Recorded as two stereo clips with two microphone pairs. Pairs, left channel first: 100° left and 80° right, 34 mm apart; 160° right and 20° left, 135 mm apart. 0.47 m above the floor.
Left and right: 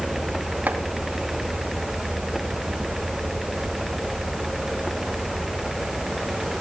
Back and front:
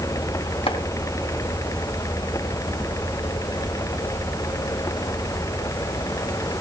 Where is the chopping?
110° right, 2 m.